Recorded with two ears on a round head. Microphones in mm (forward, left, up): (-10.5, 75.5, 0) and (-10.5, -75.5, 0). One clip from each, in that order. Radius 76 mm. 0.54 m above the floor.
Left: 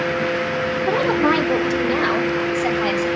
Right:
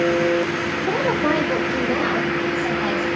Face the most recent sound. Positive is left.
turn(degrees=50)  # may be behind; listen again after turning